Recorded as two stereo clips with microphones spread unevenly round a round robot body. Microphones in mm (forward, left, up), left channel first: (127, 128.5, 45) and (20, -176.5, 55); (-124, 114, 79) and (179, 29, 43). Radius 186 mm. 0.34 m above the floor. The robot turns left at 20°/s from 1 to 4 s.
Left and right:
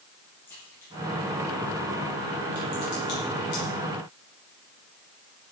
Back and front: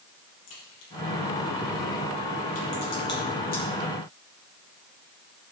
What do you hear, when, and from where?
0.5 s a crack: 155° left, 7.5 m; by 3.6 s 100° left, 7.5 m